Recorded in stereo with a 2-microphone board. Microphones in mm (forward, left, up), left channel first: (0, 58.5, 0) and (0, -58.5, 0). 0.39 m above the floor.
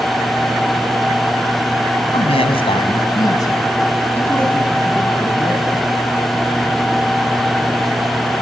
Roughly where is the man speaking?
Left.